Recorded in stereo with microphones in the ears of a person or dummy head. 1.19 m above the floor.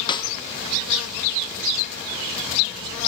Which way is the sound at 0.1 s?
25° left (ahead or behind).